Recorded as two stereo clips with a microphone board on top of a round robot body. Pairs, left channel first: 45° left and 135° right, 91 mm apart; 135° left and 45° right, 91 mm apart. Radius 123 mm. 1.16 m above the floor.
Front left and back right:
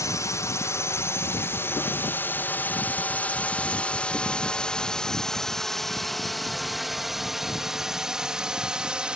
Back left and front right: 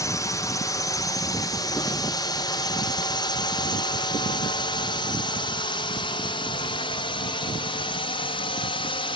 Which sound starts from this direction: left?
A drone, at 0.0 s.